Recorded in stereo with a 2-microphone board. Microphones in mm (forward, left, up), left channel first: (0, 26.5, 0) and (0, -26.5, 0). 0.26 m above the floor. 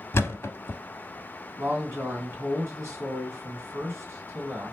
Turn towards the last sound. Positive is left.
turn(degrees=-60)  # may be behind; listen again after turning